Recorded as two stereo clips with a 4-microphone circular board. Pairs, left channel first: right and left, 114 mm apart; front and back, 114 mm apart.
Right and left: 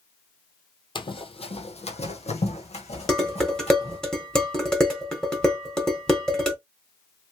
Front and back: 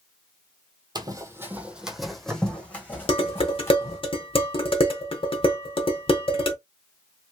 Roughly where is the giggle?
I don't hear a giggle.